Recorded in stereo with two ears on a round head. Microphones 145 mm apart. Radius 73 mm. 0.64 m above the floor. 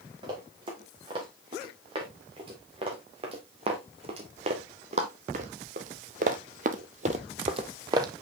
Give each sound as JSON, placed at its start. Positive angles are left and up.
{"t": 0.2, "sound": "running footsteps", "side_deg": -30, "distance_m": 4.0}